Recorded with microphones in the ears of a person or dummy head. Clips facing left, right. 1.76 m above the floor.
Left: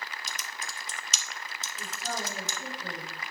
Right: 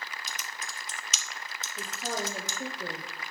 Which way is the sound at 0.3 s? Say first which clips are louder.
Even; 40° left (ahead or behind).